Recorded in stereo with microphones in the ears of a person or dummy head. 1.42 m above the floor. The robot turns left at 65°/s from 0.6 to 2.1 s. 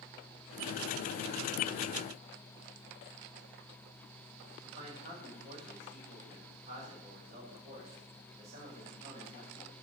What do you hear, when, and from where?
4.6 s a man speaking: 40° right (ahead or behind), 6.5 m